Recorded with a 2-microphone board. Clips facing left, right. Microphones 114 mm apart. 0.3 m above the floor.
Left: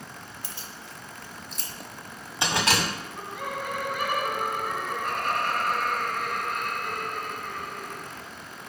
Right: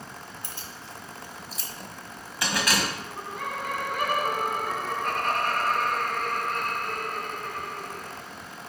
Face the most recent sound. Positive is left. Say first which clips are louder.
# right 1 dB
turn(degrees=-45)  # may be behind; listen again after turning